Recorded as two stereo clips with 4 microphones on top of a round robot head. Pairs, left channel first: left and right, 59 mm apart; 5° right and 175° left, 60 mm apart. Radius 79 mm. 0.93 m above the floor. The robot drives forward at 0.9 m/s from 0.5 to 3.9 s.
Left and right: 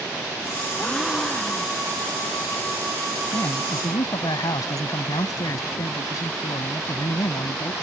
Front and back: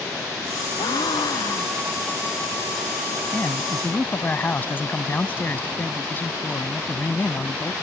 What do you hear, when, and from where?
0.8 s a gasp: 5° left
3.3 s a man speaking: 55° left; by 7.7 s 60° left